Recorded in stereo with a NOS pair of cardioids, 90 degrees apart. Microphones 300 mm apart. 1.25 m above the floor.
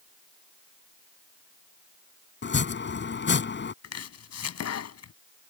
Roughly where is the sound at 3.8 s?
Ahead left.